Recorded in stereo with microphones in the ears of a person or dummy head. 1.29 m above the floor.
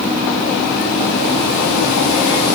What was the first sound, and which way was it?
Only background noise.